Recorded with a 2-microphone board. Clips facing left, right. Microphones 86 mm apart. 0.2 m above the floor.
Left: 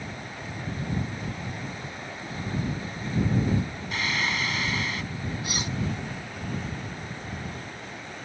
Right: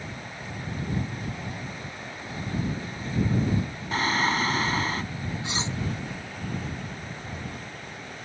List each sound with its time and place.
3.9 s singing: 40° right (ahead or behind)
5.4 s cutlery clinking: 25° right (ahead or behind)